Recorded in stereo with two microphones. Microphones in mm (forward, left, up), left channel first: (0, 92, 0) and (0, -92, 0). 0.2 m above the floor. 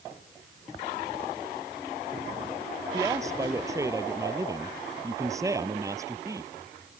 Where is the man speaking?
15° right (ahead or behind).